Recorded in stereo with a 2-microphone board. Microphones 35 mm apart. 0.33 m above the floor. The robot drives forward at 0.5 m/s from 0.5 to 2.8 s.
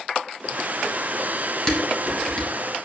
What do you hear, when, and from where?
1.7 s dishes clattering: 15° left (ahead or behind), 2 m; by 2.5 s 10° left (ahead or behind), 2.5 m